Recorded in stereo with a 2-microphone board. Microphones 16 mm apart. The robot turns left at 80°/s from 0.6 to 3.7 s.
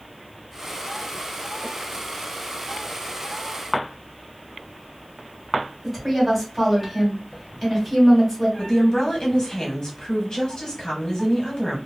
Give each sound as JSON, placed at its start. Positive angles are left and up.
{"t": 5.8, "sound": "a woman speaking", "side_deg": -5, "distance_m": 1.5}
{"t": 8.6, "sound": "a woman speaking", "side_deg": 40, "distance_m": 1.2}